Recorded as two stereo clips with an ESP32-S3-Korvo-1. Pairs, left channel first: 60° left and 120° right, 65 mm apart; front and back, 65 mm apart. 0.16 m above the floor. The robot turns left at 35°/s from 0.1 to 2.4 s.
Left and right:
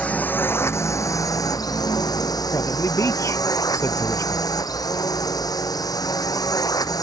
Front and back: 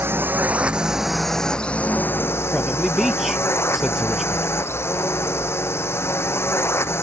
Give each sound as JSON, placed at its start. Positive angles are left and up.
{"t": 0.0, "sound": "a drone", "azimuth_deg": 130}
{"t": 2.5, "sound": "a man speaking", "azimuth_deg": 95}